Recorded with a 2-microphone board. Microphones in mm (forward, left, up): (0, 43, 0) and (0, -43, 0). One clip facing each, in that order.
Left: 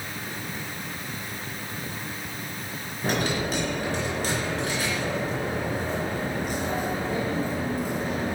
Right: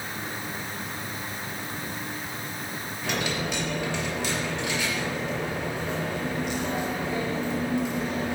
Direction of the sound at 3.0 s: 40° left (ahead or behind).